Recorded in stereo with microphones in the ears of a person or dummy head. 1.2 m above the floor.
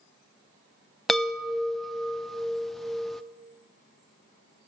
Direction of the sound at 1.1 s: Centre (ahead or behind).